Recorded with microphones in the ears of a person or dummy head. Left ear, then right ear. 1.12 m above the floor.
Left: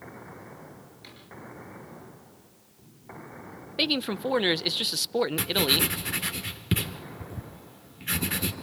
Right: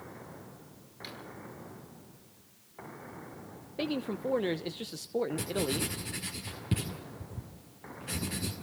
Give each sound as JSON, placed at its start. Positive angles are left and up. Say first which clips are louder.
{"t": 1.0, "sound": "a drawer", "louder": "right 6 dB", "side_deg": -25, "distance_m": 6.5}
{"t": 3.8, "sound": "a man speaking", "louder": "left 8 dB", "side_deg": 40, "distance_m": 0.8}
{"t": 5.4, "sound": "writing", "louder": "left 9 dB", "side_deg": 40, "distance_m": 1.7}